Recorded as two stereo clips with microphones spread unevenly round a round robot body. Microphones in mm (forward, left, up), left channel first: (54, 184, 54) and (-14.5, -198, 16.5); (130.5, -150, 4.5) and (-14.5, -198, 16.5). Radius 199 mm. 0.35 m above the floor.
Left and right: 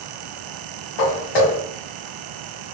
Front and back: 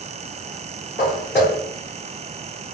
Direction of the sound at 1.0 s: 105° left.